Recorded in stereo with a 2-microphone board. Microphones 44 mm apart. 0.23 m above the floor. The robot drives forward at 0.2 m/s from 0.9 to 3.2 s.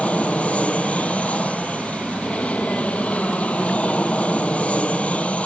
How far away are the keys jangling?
I don't hear keys jangling.